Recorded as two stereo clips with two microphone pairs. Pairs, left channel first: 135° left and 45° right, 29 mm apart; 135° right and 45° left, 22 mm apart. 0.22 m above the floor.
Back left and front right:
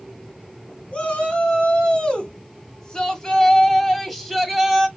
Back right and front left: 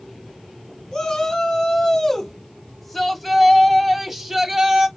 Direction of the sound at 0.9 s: 170° left.